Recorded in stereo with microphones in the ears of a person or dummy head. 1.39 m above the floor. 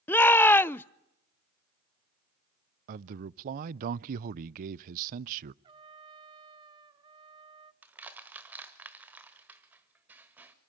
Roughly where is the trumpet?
Right.